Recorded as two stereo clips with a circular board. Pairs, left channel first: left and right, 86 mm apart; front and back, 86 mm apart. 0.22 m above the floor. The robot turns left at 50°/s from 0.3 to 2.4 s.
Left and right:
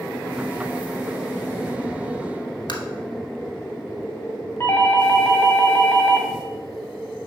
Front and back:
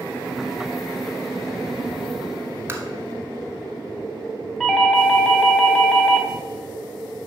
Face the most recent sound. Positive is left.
turn(degrees=70)